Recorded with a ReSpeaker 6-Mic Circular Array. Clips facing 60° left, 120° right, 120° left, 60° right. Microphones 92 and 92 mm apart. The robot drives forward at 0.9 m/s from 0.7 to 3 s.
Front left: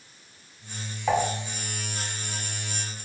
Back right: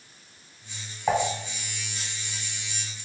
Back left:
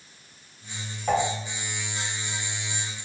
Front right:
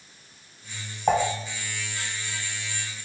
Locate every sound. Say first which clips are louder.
1.1 s dishes clattering: even, front right 2 dB; 45° right, 1.4 m; by 1.2 s 55° right, 1.3 m